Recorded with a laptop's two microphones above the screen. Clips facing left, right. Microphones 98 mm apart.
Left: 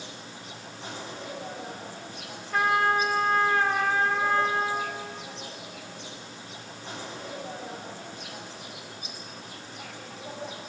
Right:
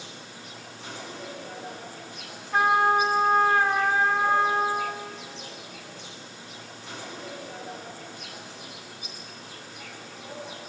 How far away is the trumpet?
About 2.5 m.